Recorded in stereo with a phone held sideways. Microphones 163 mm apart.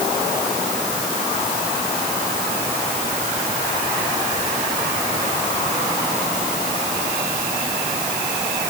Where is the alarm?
I don't hear an alarm.